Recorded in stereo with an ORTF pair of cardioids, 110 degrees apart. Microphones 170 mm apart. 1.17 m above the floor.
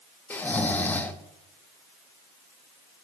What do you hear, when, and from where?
0.3 s snoring: 10° left, 1.1 m